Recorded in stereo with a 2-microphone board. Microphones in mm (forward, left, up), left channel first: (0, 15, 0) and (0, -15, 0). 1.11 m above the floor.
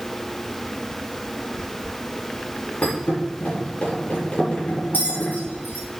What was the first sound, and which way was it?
A thud, 65° left (ahead or behind).